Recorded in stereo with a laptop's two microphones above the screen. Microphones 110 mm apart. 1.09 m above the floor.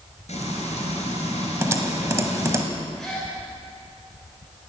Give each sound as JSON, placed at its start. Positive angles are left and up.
{"t": 0.3, "sound": "frying", "side_deg": 75, "distance_m": 4.0}
{"t": 1.6, "sound": "typing on a keyboard", "side_deg": -25, "distance_m": 1.1}
{"t": 3.0, "sound": "a gasp", "side_deg": 0, "distance_m": 3.5}